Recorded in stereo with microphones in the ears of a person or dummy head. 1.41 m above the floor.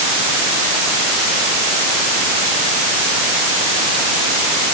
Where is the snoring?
I don't hear snoring.